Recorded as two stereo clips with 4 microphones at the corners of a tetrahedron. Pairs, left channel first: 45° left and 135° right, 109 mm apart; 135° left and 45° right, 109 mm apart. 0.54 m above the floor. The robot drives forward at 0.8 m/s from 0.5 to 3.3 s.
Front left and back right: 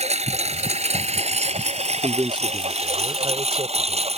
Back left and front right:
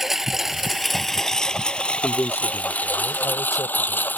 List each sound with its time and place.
0.0 s a lawn mower: 135° right; by 4.2 s 150° right
2.0 s a man speaking: 155° right; by 4.2 s 170° right